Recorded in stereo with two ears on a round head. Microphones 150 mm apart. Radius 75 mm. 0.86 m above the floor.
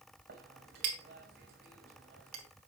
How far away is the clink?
About 3 m.